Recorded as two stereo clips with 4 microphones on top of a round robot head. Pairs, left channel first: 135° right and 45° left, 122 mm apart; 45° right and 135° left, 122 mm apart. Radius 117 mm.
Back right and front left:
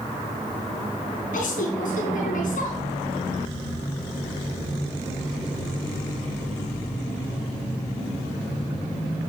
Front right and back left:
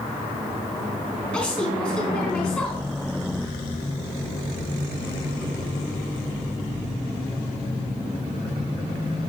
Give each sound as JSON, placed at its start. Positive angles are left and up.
{"t": 1.3, "sound": "a woman speaking", "azimuth_deg": -125, "distance_m": 3.5}